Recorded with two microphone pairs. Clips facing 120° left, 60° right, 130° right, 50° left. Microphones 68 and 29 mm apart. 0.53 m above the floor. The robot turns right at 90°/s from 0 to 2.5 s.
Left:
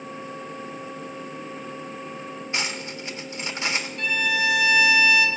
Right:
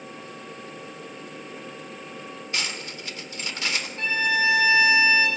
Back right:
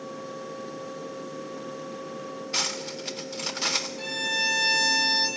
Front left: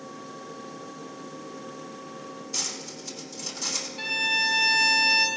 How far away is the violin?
About 1.7 m.